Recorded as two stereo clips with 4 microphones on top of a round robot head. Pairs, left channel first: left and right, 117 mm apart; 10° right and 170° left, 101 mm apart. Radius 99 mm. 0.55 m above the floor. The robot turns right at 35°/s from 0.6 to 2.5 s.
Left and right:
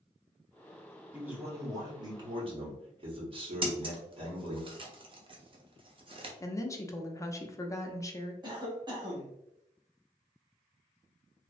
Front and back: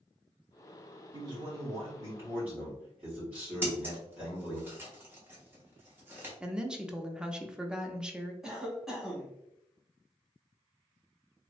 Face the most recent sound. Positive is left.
turn(degrees=-110)